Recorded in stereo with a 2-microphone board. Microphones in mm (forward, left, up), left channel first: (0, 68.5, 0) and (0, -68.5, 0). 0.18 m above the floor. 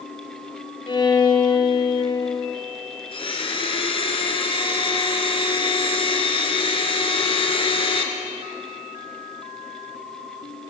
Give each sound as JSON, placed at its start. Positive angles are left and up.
{"t": 0.9, "sound": "a violin", "side_deg": 35, "distance_m": 4.0}
{"t": 3.1, "sound": "a blender", "side_deg": 40, "distance_m": 3.0}